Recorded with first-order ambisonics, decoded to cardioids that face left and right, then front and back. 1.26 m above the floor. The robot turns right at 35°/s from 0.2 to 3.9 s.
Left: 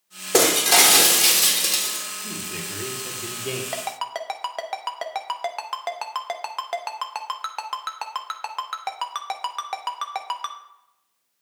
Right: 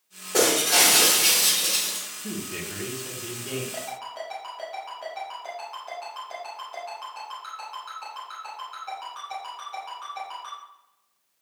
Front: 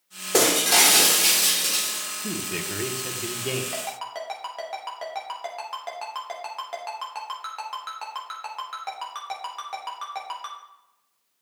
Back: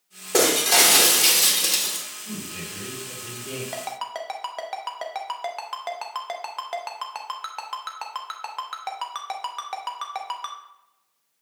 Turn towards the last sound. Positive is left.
turn(degrees=105)